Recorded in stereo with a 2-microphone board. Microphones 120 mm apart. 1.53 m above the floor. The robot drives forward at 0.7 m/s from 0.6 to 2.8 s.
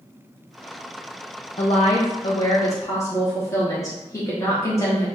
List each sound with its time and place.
1.6 s a woman speaking: 50° left (ahead or behind), 0.5 m; by 5.1 s 25° left (ahead or behind), 0.9 m